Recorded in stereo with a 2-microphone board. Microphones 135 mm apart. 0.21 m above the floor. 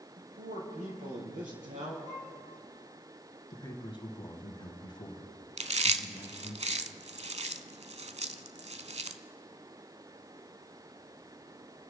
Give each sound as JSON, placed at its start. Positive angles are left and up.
{"t": 0.2, "sound": "a man speaking", "side_deg": -75, "distance_m": 5.0}
{"t": 2.0, "sound": "a violin", "side_deg": -65, "distance_m": 4.0}
{"t": 3.5, "sound": "a man speaking", "side_deg": 35, "distance_m": 1.6}
{"t": 5.6, "sound": "chewing", "side_deg": -55, "distance_m": 0.6}